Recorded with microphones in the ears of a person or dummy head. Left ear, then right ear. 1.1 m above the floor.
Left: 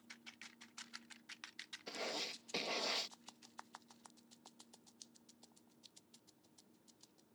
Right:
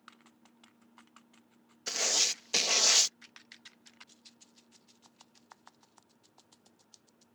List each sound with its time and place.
1.9 s writing: 65° right (ahead or behind)